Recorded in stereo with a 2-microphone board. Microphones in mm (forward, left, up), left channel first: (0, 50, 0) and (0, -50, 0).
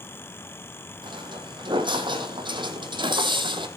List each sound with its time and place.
1.0 s footsteps: 50° right (ahead or behind), 4.5 m